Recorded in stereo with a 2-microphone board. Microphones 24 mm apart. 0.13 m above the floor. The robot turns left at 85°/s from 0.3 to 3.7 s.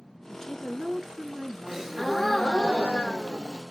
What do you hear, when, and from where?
0.3 s a woman speaking: 20° left, 1.3 m; by 2.7 s straight behind, 1.3 m
1.7 s a gasp: 150° right, 1.4 m; by 3.6 s 45° left, 1.4 m